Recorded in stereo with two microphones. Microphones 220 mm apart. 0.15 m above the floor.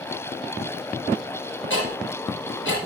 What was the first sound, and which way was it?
Ticking, 60° left (ahead or behind).